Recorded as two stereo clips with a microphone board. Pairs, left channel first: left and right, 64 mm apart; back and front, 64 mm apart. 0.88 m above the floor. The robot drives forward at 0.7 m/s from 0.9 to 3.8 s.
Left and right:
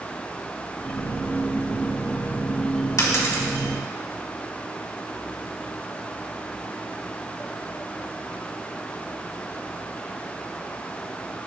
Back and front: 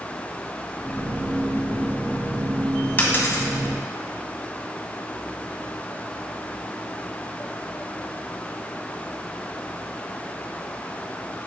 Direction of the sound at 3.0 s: 120° left.